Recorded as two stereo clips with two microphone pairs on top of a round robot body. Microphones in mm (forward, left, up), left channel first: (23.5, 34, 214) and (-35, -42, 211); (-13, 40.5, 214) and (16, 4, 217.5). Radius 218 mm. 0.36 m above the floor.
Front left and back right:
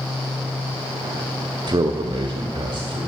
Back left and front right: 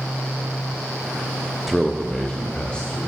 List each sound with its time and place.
1.7 s a man speaking: 145° right, 1.1 m; by 3.0 s 170° right, 2.5 m